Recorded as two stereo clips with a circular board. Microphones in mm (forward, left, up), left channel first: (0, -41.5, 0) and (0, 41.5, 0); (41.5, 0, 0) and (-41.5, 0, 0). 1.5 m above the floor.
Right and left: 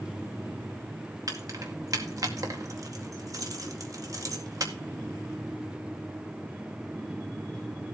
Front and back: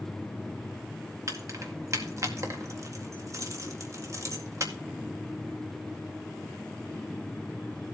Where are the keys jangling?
130° left, 2.0 m.